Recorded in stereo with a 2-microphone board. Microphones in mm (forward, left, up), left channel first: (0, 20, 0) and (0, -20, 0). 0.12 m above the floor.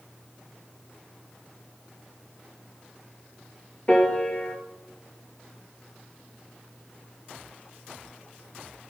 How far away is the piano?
About 0.6 m.